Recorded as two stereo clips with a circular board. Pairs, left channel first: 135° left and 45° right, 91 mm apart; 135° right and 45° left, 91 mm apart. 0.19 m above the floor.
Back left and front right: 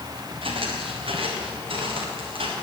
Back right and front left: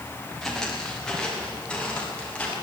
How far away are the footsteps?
About 4.5 m.